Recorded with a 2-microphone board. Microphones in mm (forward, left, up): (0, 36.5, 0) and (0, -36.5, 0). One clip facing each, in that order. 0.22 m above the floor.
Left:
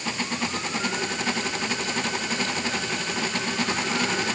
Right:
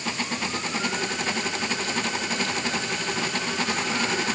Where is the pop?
No pop in this recording.